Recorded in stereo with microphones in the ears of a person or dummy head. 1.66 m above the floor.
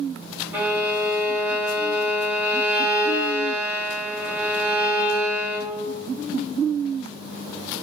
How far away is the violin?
About 1.0 m.